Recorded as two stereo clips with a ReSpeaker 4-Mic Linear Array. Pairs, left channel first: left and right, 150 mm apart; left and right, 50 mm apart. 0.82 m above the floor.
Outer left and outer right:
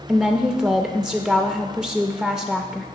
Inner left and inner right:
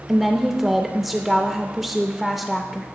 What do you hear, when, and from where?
0.1 s a woman speaking: 5° right (ahead or behind), 0.5 m